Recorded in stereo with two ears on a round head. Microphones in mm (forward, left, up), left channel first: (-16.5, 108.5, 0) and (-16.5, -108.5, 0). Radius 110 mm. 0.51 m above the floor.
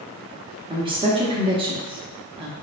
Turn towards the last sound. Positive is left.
turn(degrees=-20)  # may be behind; listen again after turning